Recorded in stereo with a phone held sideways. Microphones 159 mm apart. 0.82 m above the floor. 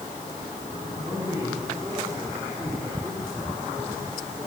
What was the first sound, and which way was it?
A man speaking, 25° right (ahead or behind).